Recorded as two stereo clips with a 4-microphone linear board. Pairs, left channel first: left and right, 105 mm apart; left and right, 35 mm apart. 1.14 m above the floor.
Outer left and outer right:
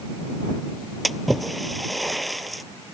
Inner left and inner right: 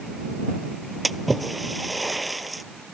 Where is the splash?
Centre (ahead or behind).